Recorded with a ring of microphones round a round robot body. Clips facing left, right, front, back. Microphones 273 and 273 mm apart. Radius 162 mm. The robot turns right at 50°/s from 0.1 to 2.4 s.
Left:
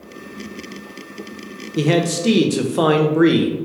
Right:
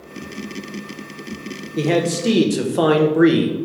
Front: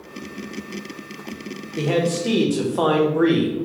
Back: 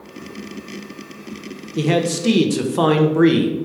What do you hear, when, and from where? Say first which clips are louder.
1.8 s a man speaking: left 1 dB, back 2 dB; 140° left, 0.6 m; by 3.6 s 175° left, 0.6 m